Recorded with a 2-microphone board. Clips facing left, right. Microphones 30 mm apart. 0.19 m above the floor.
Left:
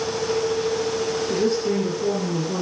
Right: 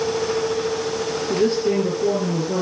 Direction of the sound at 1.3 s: 20° right (ahead or behind).